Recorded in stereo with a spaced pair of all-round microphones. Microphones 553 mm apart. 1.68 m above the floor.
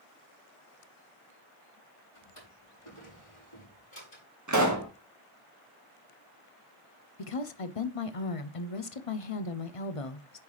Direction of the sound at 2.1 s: 70° left (ahead or behind).